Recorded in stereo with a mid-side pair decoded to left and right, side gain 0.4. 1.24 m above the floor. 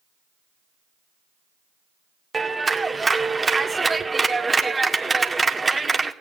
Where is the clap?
25° right, 2 m.